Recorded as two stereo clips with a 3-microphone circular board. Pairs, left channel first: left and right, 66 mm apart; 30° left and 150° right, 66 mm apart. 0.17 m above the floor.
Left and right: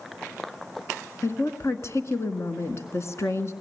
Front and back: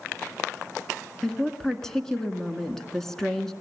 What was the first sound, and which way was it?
A woman speaking, 110° left.